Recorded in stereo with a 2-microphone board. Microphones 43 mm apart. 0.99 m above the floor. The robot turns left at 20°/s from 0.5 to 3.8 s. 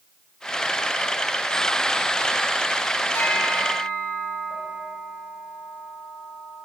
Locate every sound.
3.1 s a bell: 75° left (ahead or behind), 5.5 m; by 6.7 s 85° left, 5.5 m